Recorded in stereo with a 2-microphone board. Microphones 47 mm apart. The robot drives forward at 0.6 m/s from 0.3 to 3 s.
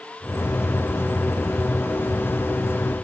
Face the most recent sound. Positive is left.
No sound to turn to.